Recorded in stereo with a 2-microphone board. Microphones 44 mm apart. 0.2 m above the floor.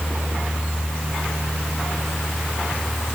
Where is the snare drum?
No snare drum in this recording.